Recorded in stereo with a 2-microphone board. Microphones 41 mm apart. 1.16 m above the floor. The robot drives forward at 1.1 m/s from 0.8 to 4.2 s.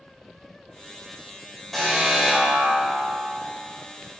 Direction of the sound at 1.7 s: 5° left (ahead or behind).